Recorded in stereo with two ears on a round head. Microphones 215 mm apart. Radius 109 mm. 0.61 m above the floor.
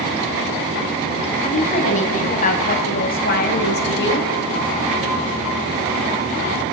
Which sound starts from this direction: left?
A woman speaking, at 1.4 s.